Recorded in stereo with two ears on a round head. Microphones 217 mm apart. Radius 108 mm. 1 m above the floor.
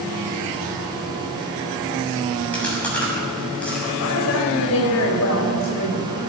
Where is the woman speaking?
70° left (ahead or behind), 4.5 m.